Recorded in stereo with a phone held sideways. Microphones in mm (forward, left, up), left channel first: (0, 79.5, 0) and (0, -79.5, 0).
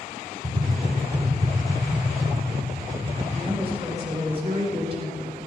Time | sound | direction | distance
0.4 | tapping | 30° right (ahead or behind) | 1.7 m
3.3 | a woman speaking | 35° right (ahead or behind) | 3.5 m